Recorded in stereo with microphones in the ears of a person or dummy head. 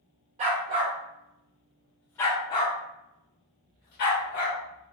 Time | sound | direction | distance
0.4 | a dog barking | 40° right (ahead or behind) | 1.1 m